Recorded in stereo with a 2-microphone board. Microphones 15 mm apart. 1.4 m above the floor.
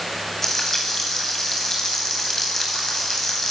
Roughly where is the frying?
Centre.